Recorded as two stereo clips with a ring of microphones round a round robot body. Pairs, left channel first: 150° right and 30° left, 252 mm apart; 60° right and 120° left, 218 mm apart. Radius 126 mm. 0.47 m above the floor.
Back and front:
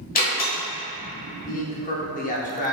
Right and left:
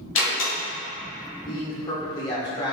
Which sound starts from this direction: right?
A door slam, at 0.1 s.